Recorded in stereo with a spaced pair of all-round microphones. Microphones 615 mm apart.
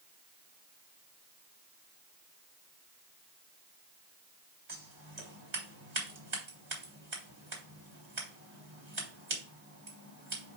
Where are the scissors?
80° right, 3.5 m.